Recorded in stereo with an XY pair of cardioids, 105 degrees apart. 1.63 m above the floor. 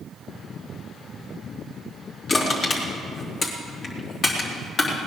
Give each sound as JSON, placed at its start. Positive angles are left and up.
{"t": 2.3, "sound": "crushing", "azimuth_deg": 50, "distance_m": 3.0}